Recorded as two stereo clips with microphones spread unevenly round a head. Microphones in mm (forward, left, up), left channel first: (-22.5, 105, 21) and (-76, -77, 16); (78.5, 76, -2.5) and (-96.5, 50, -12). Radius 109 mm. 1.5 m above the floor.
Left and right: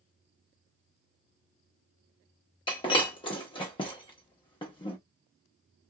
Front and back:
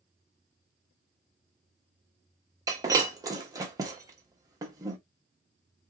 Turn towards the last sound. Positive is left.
turn(degrees=125)